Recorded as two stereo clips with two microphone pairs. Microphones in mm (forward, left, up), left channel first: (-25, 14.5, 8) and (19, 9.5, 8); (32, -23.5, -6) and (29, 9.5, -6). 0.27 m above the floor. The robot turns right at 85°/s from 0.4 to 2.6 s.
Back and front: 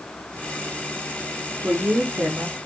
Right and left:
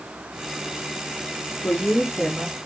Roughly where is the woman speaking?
Ahead right.